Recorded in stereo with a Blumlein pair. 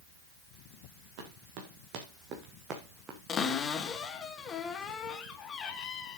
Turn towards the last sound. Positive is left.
turn(degrees=25)